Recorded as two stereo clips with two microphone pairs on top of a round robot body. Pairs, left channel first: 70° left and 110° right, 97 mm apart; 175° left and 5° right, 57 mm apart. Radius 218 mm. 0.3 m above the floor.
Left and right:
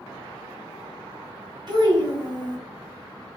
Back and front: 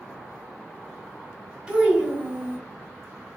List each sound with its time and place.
1.7 s a child speaking: 80° right, 1.5 m